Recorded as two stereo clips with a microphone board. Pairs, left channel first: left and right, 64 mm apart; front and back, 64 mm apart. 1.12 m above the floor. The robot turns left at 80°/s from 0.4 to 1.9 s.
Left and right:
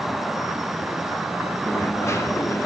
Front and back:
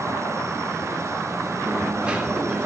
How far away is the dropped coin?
About 1.1 m.